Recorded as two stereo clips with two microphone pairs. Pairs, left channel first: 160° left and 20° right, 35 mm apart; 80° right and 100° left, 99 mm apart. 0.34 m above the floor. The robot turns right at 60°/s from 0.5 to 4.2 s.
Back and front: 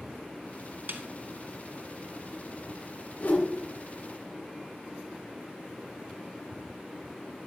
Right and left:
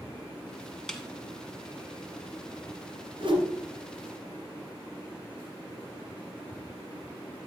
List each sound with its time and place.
0.9 s a snare drum: straight ahead, 1.5 m; by 1.0 s 10° left, 1.5 m
3.2 s a whoosh: 125° left, 3 m; by 3.4 s 135° left, 3 m